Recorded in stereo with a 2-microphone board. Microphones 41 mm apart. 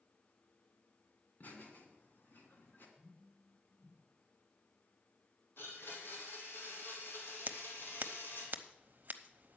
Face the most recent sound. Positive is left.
turn(degrees=-50)  # may be behind; listen again after turning